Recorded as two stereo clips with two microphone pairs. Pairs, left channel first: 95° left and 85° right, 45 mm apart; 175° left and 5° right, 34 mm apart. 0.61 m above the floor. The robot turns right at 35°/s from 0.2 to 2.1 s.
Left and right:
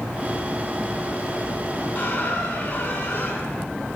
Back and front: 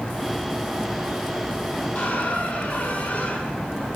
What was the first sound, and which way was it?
A squeak, 145° left.